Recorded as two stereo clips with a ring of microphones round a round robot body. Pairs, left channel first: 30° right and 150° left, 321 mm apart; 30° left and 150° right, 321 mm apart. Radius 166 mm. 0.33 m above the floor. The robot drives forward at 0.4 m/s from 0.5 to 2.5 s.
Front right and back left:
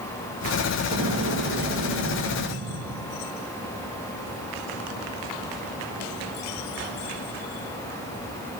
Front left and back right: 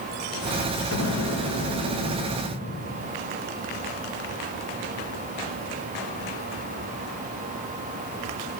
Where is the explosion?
75° left, 1.7 m; by 3.1 s 95° left, 1.7 m.